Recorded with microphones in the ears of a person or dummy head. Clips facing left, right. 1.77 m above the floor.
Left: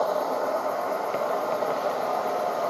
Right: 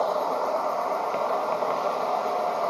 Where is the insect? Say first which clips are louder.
Even; 10° left (ahead or behind), 0.7 m.